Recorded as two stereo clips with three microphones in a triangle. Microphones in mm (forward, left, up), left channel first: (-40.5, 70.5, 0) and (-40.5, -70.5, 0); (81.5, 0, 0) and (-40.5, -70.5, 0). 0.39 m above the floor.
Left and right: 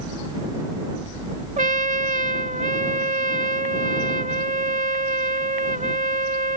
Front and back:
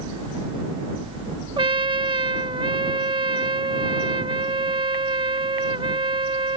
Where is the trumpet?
100° right.